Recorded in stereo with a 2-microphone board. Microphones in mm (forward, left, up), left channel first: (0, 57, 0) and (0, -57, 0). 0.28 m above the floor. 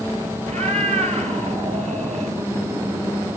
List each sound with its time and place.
0.5 s a cat meowing: 70° right (ahead or behind), 10 m; by 2.4 s 75° right (ahead or behind), 10 m